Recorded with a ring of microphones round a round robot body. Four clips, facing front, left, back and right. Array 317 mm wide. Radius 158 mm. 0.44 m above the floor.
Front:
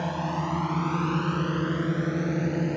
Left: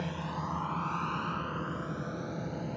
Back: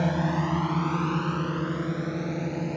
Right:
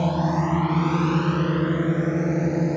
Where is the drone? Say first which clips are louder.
Right 14 dB, back 3 dB; 120° right; by 2.8 s 75° right.